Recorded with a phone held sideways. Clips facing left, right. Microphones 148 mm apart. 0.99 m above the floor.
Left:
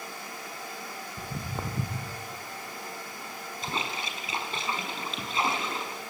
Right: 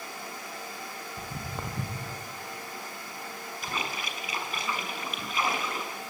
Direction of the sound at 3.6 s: 25° left (ahead or behind).